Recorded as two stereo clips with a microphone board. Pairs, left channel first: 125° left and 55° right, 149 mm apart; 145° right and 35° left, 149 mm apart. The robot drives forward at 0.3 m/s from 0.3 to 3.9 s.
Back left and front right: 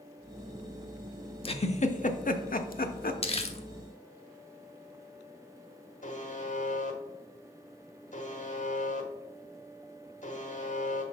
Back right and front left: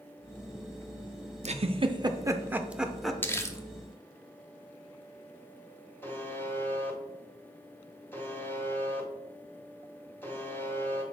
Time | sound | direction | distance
1.4 | a giggle | 75° left | 0.5 m
3.2 | crumpling | 145° left | 0.7 m
6.0 | a buzzer | 140° left | 1.1 m